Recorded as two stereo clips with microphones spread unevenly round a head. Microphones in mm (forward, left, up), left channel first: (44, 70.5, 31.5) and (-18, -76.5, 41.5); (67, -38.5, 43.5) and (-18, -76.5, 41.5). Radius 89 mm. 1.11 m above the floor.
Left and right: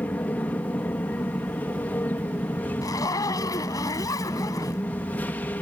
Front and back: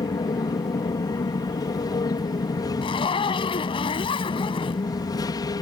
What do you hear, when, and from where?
0.0 s an aircraft: 10° right
2.8 s a zipper: 5° right